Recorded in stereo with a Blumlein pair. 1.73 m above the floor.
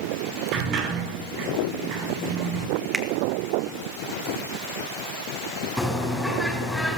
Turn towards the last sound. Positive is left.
turn(degrees=0)